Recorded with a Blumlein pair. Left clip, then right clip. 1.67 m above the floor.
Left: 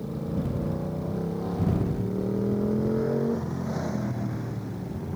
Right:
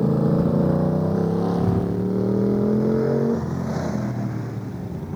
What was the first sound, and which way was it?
A motorcycle, 35° right.